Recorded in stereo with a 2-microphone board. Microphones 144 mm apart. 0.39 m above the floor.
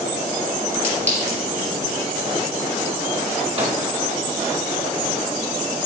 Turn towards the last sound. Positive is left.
turn(degrees=-40)  # may be behind; listen again after turning